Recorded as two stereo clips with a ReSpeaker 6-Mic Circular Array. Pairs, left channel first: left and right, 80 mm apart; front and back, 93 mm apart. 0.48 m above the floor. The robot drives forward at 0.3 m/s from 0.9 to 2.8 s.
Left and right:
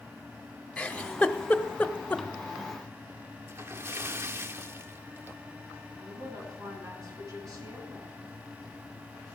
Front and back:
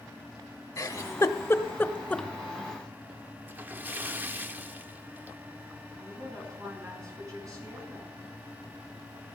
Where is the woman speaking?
130° right, 5.5 m.